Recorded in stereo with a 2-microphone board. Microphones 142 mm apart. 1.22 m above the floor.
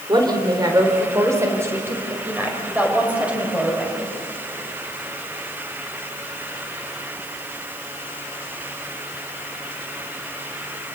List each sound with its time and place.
0.1 s a woman speaking: 30° right (ahead or behind), 3.5 m; by 4.1 s 5° right (ahead or behind), 6 m